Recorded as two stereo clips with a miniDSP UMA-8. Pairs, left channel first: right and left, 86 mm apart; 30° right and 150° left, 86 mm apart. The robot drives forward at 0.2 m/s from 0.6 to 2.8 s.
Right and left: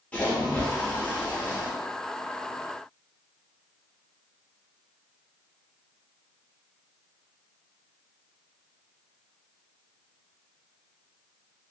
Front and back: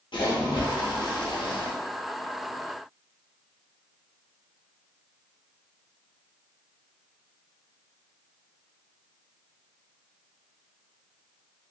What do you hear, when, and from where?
0.1 s a splash: 15° right, 0.7 m; by 1.7 s 25° right, 0.5 m